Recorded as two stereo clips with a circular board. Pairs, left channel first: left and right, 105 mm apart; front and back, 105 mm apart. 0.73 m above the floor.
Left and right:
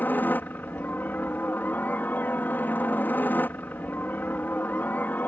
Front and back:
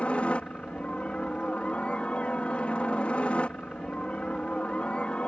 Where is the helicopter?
55° left.